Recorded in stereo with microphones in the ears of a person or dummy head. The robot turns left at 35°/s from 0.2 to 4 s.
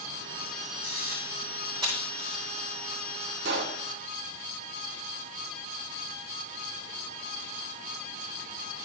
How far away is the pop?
About 1.1 m.